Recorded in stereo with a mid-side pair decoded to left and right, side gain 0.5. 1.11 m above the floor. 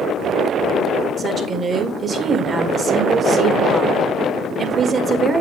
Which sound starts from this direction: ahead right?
A woman speaking, at 1.2 s.